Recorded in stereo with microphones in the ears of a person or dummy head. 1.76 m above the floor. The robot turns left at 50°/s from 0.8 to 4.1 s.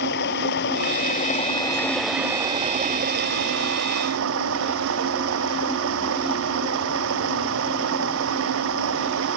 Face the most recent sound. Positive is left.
turn(degrees=-105)